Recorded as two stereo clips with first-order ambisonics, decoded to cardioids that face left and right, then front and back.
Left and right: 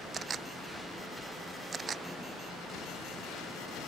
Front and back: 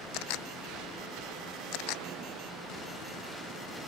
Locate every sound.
0.1 s a camera shutter: 25° right